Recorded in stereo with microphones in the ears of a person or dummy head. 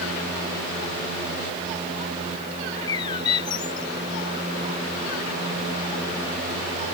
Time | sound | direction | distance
2.7 | a bird | 25° left (ahead or behind) | ?